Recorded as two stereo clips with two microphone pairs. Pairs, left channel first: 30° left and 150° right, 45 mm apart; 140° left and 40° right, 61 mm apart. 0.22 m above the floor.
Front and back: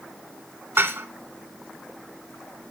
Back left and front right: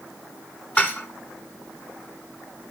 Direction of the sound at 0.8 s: 160° right.